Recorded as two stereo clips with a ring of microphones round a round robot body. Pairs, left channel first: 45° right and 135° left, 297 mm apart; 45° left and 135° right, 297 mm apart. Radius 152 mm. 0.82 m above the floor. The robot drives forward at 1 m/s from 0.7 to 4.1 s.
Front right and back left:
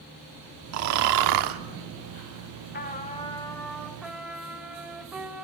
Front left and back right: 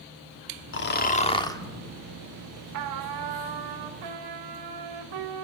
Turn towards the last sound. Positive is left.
turn(degrees=-135)